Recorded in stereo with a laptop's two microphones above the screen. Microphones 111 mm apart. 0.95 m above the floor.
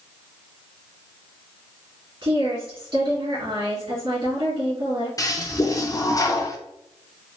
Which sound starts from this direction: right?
A woman speaking, at 2.2 s.